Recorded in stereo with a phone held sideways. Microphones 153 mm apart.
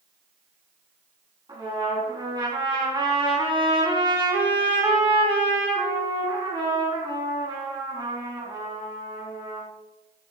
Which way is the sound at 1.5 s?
30° right (ahead or behind).